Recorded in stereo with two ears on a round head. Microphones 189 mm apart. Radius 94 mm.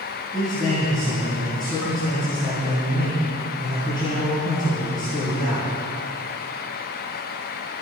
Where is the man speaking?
20° left (ahead or behind), 7.5 m.